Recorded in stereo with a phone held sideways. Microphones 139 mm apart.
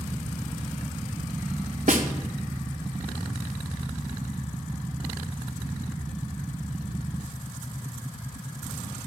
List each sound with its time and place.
1.9 s a snare drum: 60° right (ahead or behind), 0.9 m